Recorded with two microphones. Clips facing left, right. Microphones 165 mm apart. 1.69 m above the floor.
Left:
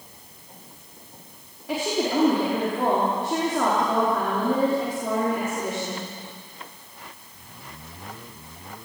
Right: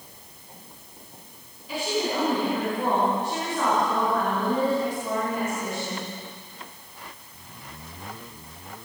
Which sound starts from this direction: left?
A woman speaking, at 1.7 s.